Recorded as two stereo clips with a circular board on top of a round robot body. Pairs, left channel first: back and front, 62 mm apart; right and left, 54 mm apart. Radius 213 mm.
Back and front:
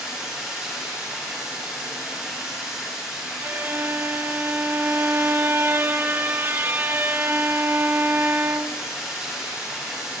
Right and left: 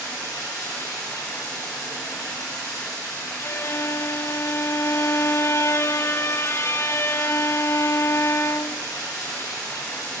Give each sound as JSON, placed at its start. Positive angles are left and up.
{"t": 0.0, "sound": "running water", "azimuth_deg": -85, "distance_m": 8.5}
{"t": 3.4, "sound": "a violin", "azimuth_deg": -55, "distance_m": 0.6}